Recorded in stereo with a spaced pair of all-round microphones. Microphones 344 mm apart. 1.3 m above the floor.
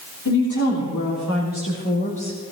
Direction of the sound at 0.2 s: 60° left (ahead or behind).